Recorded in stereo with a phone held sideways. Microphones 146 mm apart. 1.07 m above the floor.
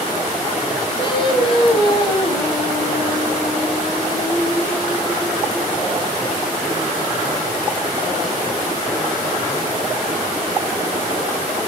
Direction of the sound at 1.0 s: 35° left (ahead or behind).